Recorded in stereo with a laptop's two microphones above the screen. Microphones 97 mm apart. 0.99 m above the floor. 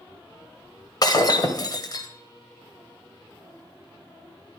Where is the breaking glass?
40° left (ahead or behind), 1.3 m.